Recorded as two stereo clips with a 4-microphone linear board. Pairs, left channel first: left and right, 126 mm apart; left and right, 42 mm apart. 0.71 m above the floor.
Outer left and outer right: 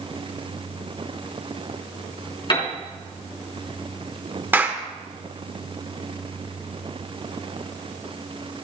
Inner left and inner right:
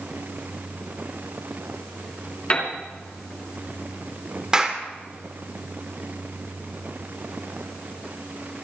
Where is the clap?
15° right (ahead or behind), 1.7 m.